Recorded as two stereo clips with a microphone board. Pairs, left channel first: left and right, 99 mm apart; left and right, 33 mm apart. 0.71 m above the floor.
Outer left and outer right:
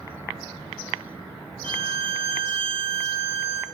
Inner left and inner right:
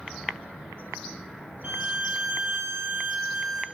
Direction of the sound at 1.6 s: 60° right (ahead or behind).